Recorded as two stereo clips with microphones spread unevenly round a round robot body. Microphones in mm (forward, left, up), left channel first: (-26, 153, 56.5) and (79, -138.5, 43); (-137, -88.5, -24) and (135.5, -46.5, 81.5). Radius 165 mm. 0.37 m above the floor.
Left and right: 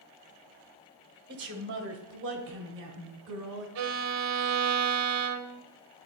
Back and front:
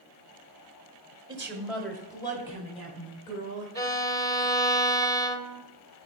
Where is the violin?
105° right, 0.8 m.